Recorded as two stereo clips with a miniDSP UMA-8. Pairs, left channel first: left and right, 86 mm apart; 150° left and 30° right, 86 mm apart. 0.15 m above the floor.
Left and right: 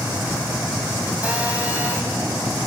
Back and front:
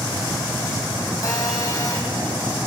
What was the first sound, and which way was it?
A phone buzzing, 160° right.